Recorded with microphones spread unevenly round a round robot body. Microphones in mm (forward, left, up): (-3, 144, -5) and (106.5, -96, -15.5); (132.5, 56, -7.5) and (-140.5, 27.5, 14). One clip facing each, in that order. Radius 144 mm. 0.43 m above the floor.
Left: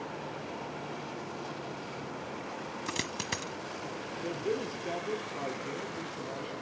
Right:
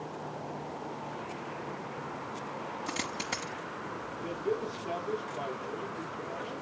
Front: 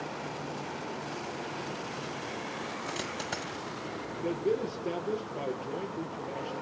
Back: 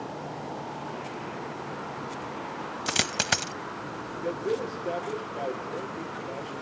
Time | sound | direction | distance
2.9 | a dropped coin | 170° right | 0.8 m
4.2 | a man speaking | 80° left | 9.5 m